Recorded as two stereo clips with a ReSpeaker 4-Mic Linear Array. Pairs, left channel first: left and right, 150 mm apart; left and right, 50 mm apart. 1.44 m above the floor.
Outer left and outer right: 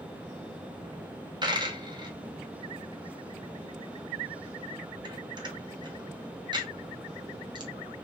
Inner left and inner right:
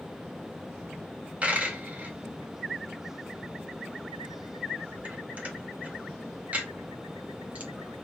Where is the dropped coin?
30° right (ahead or behind), 0.9 m.